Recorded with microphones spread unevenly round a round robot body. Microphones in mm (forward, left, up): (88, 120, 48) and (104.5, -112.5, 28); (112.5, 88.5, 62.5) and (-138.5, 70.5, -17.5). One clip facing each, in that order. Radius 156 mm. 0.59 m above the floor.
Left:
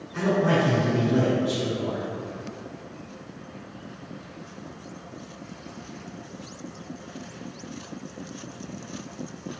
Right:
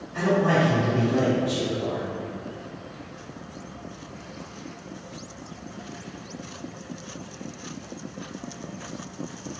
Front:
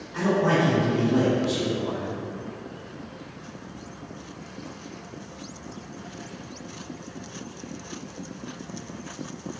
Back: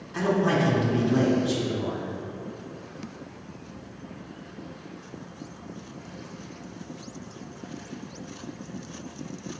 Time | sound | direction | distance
0.1 | a man speaking | 160° left | 1.5 m